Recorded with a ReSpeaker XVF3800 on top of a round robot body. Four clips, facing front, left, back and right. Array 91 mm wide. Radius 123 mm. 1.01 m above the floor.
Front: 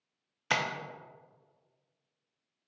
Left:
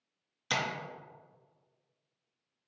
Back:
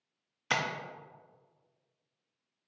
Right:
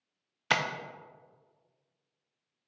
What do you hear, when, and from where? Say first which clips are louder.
0.5 s tapping: right 4 dB, front 1 dB; 85° right, 0.6 m